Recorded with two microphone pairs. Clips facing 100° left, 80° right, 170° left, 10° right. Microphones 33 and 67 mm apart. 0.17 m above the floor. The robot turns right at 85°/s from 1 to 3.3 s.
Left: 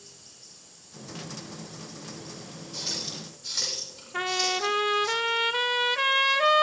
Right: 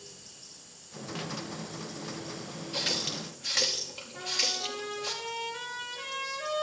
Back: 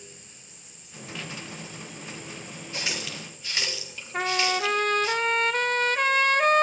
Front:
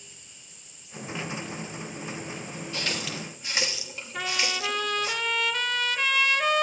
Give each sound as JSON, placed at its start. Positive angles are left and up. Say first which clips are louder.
{"t": 2.7, "sound": "a running tap", "louder": "right 4 dB, front 1 dB", "azimuth_deg": -125, "distance_m": 2.5}
{"t": 4.1, "sound": "a trumpet", "louder": "left 6 dB, back 5 dB", "azimuth_deg": 125, "distance_m": 0.7}